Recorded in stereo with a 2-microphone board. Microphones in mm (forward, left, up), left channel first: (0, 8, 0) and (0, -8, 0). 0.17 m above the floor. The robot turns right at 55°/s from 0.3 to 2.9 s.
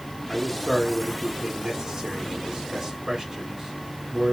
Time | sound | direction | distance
0.3 | a man speaking | 15° left (ahead or behind) | 1.2 m